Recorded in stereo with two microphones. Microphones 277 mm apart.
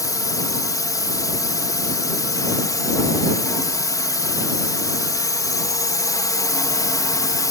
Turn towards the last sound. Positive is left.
turn(degrees=10)  # may be behind; listen again after turning